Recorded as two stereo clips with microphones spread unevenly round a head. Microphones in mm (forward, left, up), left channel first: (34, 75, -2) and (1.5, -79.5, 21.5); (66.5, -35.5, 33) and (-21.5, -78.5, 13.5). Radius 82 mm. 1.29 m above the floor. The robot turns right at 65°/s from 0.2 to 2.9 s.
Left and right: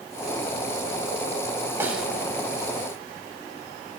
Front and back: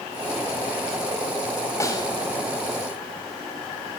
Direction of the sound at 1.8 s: 30° right.